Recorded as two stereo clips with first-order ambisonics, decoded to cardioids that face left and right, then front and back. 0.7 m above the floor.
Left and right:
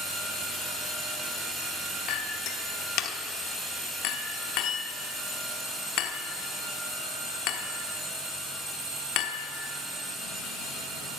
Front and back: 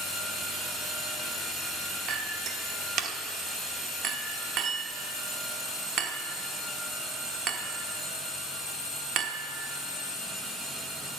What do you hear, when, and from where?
2.1 s a clink: 125° left, 1.0 m